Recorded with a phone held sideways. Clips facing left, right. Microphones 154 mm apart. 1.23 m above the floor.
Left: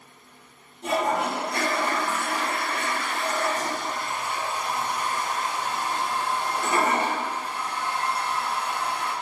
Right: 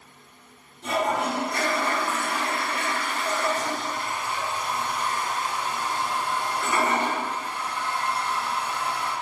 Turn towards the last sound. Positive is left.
turn(degrees=45)  # may be behind; listen again after turning